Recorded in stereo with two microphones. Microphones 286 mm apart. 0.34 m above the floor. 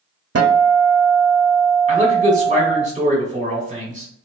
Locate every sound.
0.3 s a guitar: 60° right (ahead or behind), 0.5 m
1.9 s a man speaking: 25° right (ahead or behind), 1.4 m